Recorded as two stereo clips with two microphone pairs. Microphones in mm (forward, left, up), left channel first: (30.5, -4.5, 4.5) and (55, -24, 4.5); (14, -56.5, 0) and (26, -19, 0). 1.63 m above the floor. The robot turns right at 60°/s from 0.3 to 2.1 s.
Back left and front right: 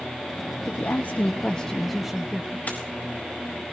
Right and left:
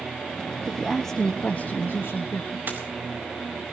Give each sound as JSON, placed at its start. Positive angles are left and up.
{"t": 0.6, "sound": "a woman speaking", "azimuth_deg": 150, "distance_m": 1.8}
{"t": 2.7, "sound": "a dropped coin", "azimuth_deg": 105, "distance_m": 4.5}